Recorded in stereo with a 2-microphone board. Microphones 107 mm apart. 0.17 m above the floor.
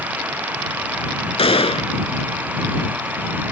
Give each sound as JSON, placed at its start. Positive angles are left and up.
{"t": 1.4, "sound": "a gunshot", "side_deg": 65}